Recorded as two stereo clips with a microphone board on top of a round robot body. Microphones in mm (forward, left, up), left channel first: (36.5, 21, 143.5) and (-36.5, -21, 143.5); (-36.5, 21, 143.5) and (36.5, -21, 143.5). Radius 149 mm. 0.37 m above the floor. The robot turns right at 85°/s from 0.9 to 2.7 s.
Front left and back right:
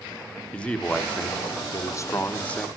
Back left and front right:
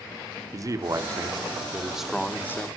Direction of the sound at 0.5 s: 40° right.